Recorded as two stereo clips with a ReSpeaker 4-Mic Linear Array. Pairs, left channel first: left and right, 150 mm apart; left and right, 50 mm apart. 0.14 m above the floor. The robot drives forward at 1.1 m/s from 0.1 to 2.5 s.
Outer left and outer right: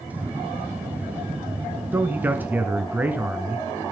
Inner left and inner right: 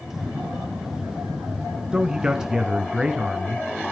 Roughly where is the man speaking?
Centre.